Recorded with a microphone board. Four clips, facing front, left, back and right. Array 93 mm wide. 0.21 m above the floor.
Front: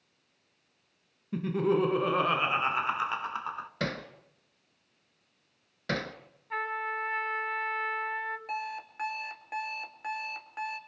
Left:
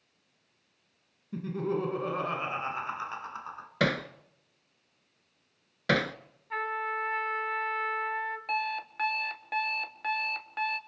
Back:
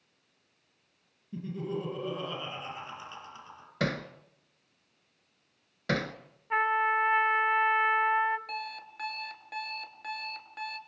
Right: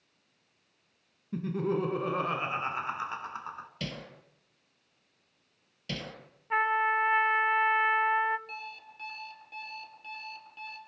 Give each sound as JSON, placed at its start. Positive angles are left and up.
{"t": 1.3, "sound": "laughter", "azimuth_deg": -5, "distance_m": 1.9}
{"t": 3.8, "sound": "hammering", "azimuth_deg": 90, "distance_m": 1.1}
{"t": 6.5, "sound": "a trumpet", "azimuth_deg": -135, "distance_m": 1.4}
{"t": 8.5, "sound": "an alarm clock", "azimuth_deg": 70, "distance_m": 1.3}